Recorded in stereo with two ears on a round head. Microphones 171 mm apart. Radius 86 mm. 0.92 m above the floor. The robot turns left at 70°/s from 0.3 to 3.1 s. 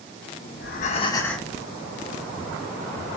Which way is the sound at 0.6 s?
60° left.